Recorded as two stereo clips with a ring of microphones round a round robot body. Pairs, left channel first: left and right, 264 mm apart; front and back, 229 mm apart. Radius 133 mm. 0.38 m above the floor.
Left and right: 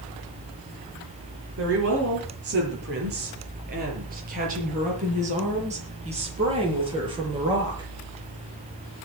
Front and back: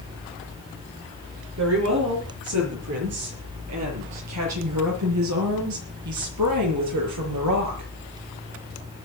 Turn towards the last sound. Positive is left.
turn(degrees=-165)